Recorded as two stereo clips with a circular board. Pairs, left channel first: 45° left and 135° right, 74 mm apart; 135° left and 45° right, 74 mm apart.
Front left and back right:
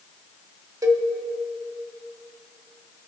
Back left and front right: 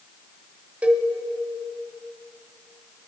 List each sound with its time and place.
0.8 s a cowbell: 115° right, 1.1 m